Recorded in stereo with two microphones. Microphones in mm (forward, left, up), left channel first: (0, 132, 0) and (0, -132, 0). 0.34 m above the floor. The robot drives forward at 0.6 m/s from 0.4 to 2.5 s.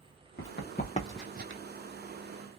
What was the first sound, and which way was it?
Running footsteps, 50° left (ahead or behind).